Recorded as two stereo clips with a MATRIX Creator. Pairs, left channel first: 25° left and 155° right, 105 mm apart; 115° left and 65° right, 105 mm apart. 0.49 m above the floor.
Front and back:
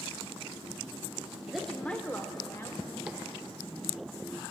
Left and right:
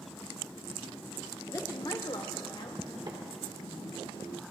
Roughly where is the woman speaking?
Behind left.